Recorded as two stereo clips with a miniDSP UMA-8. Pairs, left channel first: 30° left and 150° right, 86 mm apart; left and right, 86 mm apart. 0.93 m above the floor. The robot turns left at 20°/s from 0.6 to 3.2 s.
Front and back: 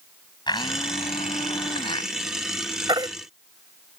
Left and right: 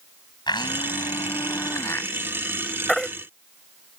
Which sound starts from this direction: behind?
A baby crying, at 2.9 s.